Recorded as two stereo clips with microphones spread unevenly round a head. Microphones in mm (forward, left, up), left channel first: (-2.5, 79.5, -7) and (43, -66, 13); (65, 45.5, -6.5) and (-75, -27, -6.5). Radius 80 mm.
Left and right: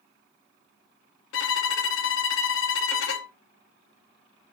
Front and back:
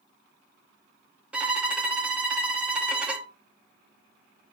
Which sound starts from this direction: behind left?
A violin, at 1.3 s.